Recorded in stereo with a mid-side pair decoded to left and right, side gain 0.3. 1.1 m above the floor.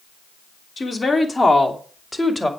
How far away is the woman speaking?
About 3 m.